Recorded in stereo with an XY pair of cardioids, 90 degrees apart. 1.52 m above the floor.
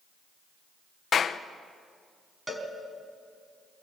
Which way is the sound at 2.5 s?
10° right.